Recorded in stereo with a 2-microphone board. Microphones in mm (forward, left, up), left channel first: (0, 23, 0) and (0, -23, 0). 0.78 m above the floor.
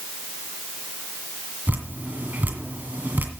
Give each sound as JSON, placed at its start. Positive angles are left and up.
{"t": 1.7, "sound": "dripping", "side_deg": -40, "distance_m": 1.8}